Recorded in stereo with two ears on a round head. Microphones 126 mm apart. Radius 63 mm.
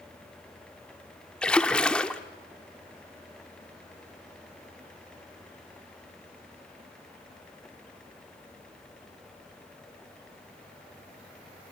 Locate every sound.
1.4 s a splash: 5° left (ahead or behind), 1.1 m